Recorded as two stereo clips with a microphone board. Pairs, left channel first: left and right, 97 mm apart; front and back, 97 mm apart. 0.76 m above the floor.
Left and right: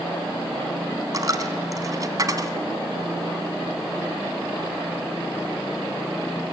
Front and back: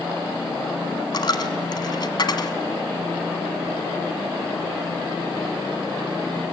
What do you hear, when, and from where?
1.1 s a dropped coin: 40° right, 1.4 m